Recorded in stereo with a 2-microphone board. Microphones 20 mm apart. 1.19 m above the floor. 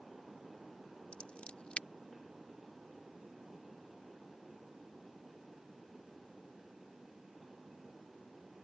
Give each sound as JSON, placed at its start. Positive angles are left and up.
{"t": 1.1, "sound": "scissors", "side_deg": 70}